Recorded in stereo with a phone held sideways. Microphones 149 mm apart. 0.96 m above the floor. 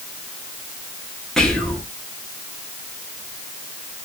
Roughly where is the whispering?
Centre.